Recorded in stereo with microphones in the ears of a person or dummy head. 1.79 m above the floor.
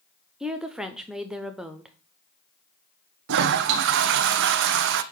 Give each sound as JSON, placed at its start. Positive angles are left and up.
{"t": 0.4, "sound": "a woman speaking", "side_deg": -10, "distance_m": 0.6}
{"t": 3.3, "sound": "a toilet flushing", "side_deg": -70, "distance_m": 0.7}